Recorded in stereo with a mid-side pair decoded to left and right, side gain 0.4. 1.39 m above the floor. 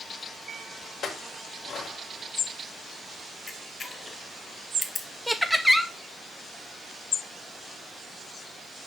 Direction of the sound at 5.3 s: Straight ahead.